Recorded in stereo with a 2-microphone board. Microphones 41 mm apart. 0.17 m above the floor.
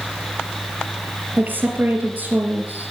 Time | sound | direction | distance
1.4 | a woman speaking | 40° right (ahead or behind) | 3.5 m